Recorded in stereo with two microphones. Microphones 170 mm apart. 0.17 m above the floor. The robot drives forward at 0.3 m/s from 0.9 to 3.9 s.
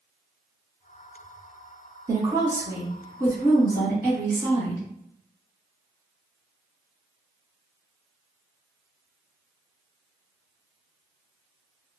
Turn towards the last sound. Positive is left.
turn(degrees=-15)  # may be behind; listen again after turning